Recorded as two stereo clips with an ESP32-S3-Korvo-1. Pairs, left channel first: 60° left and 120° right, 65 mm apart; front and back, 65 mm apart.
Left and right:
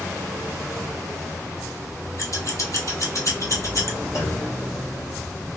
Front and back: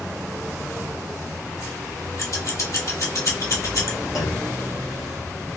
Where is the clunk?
20° left, 1.5 m.